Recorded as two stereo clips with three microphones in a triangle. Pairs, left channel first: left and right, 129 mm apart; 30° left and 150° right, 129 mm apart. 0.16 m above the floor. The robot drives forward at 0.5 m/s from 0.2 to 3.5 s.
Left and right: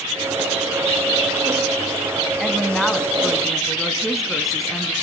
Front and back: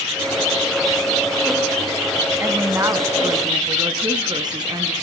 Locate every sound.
2.4 s a woman speaking: straight behind, 1.2 m